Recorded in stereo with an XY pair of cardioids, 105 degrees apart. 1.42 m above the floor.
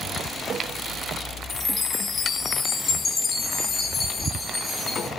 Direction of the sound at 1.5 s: 35° left.